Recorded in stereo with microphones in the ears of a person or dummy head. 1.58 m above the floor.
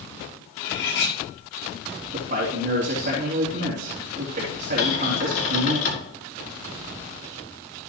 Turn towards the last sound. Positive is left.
turn(degrees=40)  # may be behind; listen again after turning